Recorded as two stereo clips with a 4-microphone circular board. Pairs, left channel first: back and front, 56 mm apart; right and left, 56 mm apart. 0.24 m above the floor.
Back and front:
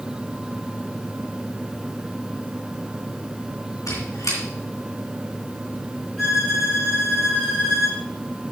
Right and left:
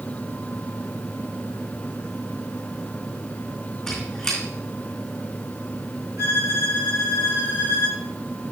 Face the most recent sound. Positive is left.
turn(degrees=95)